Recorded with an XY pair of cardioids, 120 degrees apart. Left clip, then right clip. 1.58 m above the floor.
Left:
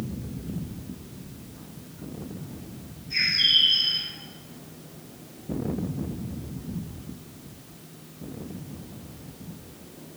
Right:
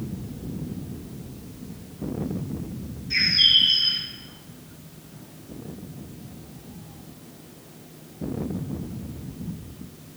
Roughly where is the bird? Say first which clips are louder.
Right 3 dB; ahead right.